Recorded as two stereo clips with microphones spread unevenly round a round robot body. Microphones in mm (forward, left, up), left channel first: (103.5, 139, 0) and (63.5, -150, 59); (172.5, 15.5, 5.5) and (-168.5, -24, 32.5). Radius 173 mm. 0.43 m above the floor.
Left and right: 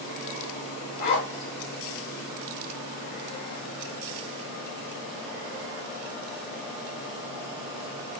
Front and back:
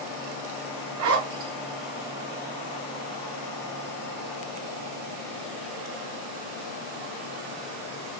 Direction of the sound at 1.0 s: 135° left.